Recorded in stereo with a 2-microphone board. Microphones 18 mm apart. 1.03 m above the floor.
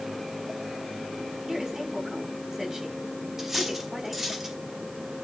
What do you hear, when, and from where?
1.5 s a woman speaking: 35° right (ahead or behind), 7 m
3.4 s cutlery clinking: 20° right (ahead or behind), 3 m